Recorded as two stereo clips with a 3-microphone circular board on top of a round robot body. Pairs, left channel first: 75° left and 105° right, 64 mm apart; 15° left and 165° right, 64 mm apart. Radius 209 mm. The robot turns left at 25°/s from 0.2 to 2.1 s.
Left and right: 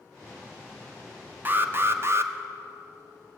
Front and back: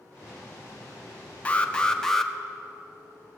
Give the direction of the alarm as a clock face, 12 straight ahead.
2 o'clock.